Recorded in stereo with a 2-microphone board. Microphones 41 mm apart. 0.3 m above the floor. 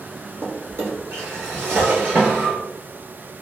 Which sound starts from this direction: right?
A drawer, at 0.4 s.